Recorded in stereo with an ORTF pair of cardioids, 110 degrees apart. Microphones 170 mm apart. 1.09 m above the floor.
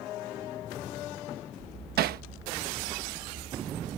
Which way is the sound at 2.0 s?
65° right.